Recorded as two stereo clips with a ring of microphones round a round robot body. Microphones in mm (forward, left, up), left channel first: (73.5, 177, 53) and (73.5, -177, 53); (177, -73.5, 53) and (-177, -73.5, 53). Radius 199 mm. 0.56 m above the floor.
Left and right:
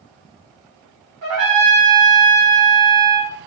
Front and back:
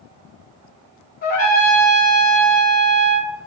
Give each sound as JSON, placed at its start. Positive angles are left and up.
{"t": 1.2, "sound": "a trumpet", "azimuth_deg": -65, "distance_m": 1.4}